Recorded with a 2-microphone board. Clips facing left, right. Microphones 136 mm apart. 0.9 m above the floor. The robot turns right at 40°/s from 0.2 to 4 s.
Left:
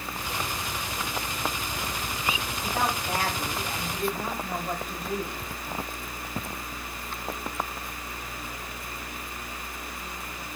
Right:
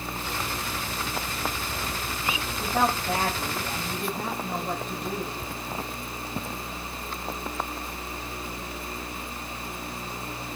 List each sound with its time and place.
2.6 s a woman speaking: 55° right, 5 m; by 5.4 s straight ahead, 5 m